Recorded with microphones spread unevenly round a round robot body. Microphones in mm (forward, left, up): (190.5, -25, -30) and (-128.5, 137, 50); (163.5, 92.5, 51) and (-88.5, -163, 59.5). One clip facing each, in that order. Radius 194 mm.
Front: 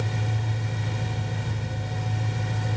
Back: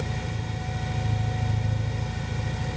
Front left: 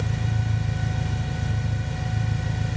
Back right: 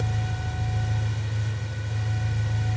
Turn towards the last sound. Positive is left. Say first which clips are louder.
# front 1 dB, front left 3 dB
turn(degrees=80)